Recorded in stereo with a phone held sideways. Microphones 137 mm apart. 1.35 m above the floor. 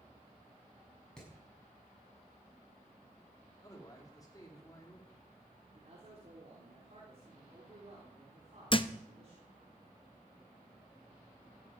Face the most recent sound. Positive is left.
turn(degrees=35)  # may be behind; listen again after turning